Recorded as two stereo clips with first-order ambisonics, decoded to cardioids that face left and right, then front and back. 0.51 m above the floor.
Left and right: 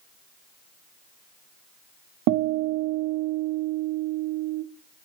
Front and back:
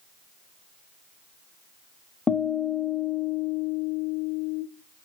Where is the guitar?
80° right, 0.7 m.